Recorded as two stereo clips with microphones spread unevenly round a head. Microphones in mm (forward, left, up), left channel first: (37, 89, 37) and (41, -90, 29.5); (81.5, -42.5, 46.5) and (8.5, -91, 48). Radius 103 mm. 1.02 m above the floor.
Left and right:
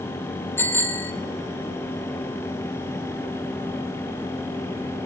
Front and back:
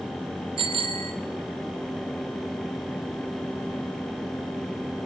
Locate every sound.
0.6 s a bicycle bell: 170° left, 3 m